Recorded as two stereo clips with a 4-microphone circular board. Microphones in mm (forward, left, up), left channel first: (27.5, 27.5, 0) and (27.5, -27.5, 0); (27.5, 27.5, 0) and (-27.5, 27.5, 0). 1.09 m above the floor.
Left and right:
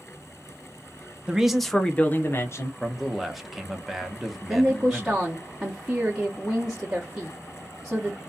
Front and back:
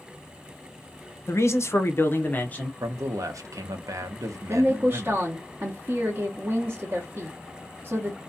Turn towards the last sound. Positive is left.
turn(degrees=-170)